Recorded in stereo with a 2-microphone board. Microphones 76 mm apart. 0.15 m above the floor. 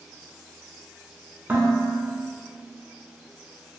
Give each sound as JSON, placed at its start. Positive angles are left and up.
{"t": 1.5, "sound": "dishes clattering", "side_deg": -25, "distance_m": 1.0}